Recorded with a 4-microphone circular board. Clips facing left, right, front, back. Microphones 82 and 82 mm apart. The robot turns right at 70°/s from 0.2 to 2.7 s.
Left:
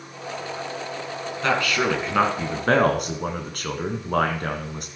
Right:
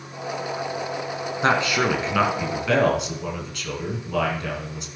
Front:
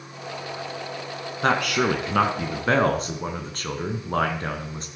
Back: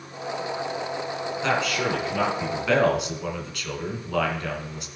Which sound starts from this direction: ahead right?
A man speaking, at 1.4 s.